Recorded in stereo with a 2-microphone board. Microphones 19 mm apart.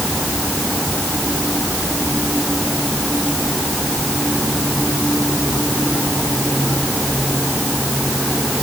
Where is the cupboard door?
No cupboard door in this recording.